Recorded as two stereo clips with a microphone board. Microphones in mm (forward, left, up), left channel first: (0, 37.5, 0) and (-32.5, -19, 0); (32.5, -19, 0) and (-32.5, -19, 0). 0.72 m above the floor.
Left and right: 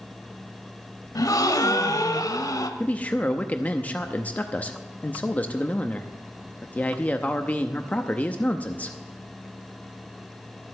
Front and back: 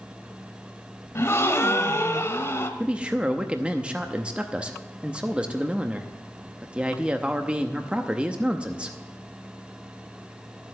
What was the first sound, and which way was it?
A gasp, 45° left.